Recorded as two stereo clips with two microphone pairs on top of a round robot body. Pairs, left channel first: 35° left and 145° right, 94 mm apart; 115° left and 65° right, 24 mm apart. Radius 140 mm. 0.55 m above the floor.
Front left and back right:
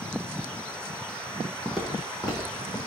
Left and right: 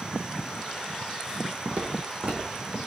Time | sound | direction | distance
1.6 | footsteps | 50° right | 1.0 m